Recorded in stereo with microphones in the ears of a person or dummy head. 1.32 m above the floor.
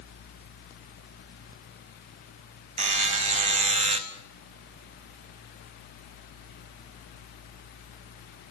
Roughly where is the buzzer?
Right.